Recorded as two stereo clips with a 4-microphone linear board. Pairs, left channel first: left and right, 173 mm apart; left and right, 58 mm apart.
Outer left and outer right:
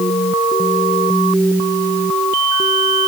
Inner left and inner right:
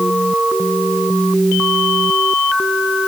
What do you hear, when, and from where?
Only background noise.